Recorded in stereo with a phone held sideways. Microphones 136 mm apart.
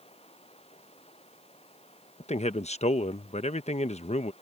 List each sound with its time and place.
0.0 s running water: 45° left (ahead or behind)
2.2 s a man speaking: 55° left (ahead or behind)